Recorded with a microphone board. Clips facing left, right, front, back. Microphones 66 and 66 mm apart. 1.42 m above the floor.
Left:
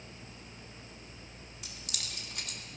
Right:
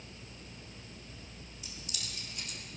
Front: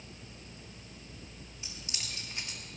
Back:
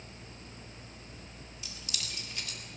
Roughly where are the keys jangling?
Ahead left.